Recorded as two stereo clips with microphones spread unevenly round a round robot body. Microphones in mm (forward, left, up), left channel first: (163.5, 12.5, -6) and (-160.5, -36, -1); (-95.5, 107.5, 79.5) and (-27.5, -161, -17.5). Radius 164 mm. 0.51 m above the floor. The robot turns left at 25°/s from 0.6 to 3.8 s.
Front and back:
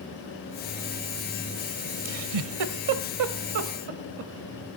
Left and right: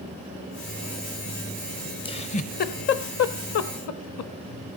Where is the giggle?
175° left, 0.8 m; by 4.3 s 135° left, 0.8 m.